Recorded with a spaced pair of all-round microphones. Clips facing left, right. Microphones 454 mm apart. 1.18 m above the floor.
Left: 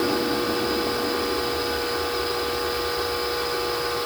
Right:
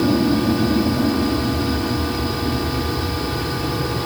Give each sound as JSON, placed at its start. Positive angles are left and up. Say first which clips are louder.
{"t": 0.0, "sound": "an aircraft", "louder": "right 7 dB", "side_deg": -50}